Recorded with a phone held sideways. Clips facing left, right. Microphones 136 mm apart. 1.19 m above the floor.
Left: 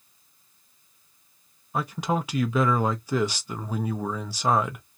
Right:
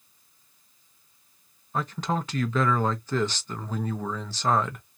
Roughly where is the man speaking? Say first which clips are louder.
Left 2 dB; centre.